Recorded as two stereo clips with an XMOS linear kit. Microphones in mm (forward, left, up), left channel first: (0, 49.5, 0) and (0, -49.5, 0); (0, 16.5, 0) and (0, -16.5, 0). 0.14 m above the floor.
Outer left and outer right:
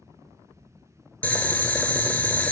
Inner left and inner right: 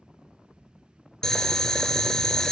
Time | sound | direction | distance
1.2 | boiling | 15° left (ahead or behind) | 0.8 m